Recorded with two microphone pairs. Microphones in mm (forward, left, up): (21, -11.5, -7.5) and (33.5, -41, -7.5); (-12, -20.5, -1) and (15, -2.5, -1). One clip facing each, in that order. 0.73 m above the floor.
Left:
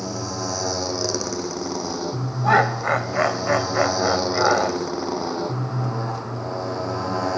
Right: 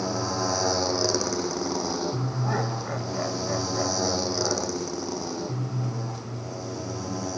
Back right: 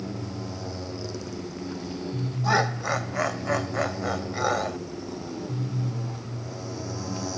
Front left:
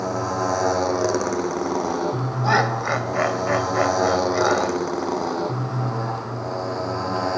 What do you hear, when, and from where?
0.0 s a motorcycle: 15° left; by 7.4 s 80° left
2.4 s laughter: 110° left